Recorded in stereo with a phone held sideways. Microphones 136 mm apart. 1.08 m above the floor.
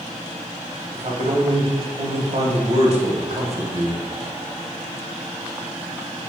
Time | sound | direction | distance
0.9 | a man speaking | 50° right (ahead or behind) | 0.8 m